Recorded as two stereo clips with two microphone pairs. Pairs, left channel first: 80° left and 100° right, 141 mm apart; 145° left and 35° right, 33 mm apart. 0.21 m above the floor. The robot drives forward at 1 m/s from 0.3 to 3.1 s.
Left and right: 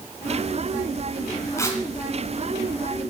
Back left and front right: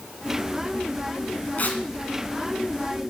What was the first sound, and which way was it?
Tearing paper, 140° left.